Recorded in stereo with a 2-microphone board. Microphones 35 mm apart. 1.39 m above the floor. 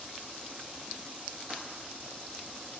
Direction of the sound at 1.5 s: 30° right (ahead or behind).